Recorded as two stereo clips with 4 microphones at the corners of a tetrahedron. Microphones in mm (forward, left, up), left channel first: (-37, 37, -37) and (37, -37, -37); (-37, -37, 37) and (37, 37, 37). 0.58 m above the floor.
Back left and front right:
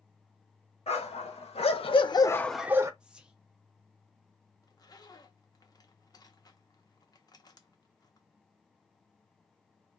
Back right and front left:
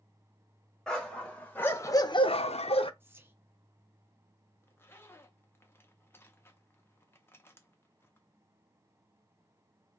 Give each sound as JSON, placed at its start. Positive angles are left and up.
{"t": 0.9, "sound": "a dog barking", "azimuth_deg": 140, "distance_m": 1.4}
{"t": 3.0, "sound": "whispering", "azimuth_deg": 20, "distance_m": 0.6}
{"t": 4.6, "sound": "a zipper", "azimuth_deg": 165, "distance_m": 0.7}